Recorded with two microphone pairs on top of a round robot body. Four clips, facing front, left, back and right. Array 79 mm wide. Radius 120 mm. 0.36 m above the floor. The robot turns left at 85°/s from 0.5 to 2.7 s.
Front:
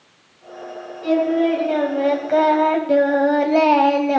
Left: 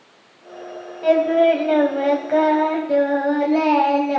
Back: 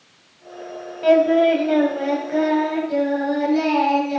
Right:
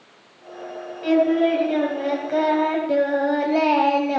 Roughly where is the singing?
Behind left.